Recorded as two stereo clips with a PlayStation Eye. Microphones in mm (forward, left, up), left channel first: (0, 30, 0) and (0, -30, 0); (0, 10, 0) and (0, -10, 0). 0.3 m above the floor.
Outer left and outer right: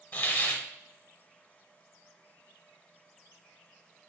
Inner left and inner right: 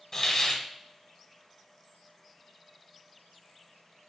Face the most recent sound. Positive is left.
turn(degrees=25)  # may be behind; listen again after turning